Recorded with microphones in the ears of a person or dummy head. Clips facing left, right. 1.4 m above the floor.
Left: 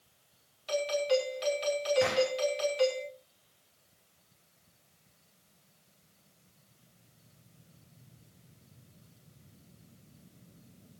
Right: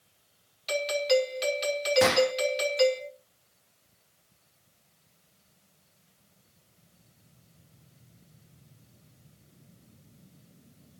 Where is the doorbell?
35° right (ahead or behind), 5 m.